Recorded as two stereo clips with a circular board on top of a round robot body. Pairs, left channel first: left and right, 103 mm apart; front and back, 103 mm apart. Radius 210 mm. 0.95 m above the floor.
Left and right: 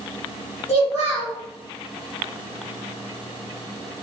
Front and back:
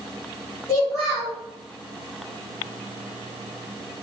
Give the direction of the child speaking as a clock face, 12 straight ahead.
10 o'clock.